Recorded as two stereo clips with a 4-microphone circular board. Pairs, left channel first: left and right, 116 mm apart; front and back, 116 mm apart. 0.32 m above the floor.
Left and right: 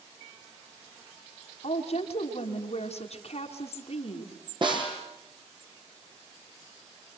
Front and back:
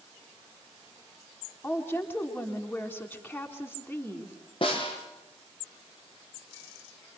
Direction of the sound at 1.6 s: 75° left.